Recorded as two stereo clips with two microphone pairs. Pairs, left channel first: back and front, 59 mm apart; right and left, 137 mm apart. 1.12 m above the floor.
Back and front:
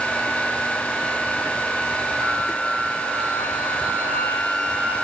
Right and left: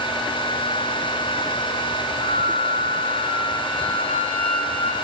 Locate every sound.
2.2 s a flute: 55° right, 8 m